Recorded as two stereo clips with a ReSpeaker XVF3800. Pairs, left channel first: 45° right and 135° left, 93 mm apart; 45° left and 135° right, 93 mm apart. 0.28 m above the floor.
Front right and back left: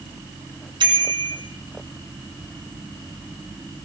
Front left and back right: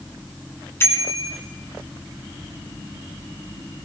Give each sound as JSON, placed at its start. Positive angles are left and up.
{"t": 0.8, "sound": "a bicycle bell", "azimuth_deg": 105, "distance_m": 2.0}